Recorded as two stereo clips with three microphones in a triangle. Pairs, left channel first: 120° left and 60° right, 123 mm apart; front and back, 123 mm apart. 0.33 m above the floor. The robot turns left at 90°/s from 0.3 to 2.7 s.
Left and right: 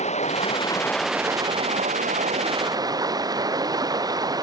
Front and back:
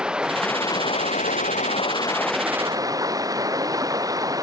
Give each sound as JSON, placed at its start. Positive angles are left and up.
{"t": 0.0, "sound": "running water", "azimuth_deg": 100}